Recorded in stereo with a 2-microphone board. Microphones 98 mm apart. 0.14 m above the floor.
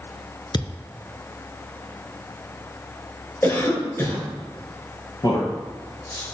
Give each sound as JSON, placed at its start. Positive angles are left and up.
{"t": 0.5, "sound": "a thud", "side_deg": 50, "distance_m": 0.8}
{"t": 3.4, "sound": "a cough", "side_deg": 25, "distance_m": 3.5}
{"t": 5.2, "sound": "a man speaking", "side_deg": 45, "distance_m": 2.0}